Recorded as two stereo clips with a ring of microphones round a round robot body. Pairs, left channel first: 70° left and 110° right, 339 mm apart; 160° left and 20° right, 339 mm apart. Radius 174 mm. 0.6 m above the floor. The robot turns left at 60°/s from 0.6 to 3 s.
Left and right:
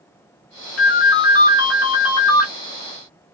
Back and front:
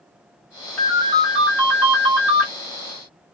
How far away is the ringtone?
About 1.3 m.